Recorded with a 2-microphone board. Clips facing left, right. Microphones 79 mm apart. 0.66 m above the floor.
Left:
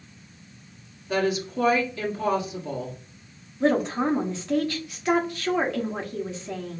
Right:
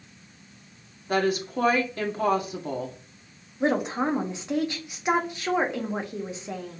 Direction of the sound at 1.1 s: 50° right (ahead or behind).